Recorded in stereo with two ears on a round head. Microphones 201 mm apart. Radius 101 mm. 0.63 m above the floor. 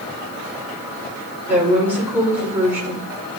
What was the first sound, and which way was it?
A woman speaking, 10° right (ahead or behind).